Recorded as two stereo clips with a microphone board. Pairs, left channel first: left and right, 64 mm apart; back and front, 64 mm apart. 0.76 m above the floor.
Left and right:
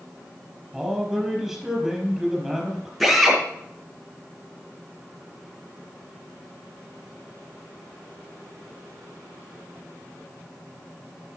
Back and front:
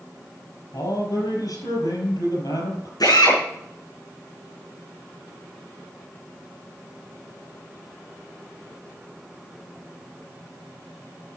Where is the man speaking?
Straight behind, 5 m.